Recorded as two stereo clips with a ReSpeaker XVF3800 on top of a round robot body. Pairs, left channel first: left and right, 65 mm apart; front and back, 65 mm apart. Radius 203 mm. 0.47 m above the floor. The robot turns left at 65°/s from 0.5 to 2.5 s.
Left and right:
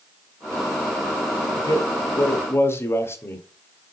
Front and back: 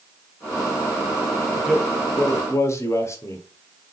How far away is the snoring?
I don't hear snoring.